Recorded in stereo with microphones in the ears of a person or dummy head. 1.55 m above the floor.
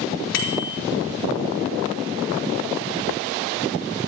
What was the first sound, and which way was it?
A bicycle bell, 75° left (ahead or behind).